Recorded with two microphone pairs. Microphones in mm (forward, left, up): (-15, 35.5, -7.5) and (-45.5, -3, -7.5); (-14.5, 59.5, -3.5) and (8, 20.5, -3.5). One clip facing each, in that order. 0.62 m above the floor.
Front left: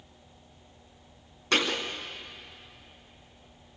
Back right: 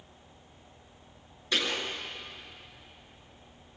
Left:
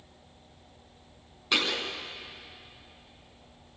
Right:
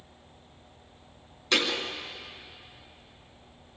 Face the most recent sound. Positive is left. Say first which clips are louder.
# front left 4 dB, right 1 dB
turn(degrees=40)